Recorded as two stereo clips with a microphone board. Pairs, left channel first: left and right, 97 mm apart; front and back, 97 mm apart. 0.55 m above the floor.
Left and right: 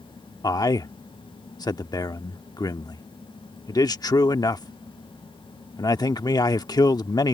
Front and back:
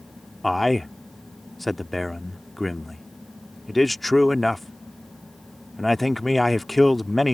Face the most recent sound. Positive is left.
turn(degrees=90)